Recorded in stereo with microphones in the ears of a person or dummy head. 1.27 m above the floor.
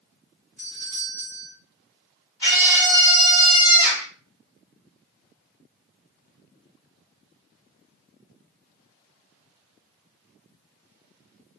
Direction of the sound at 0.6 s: 5° right (ahead or behind).